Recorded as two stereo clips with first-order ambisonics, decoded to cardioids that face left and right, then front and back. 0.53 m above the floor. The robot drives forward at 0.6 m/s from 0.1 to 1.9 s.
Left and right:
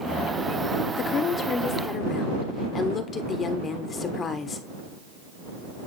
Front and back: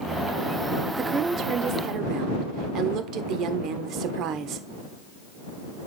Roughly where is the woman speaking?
Behind left.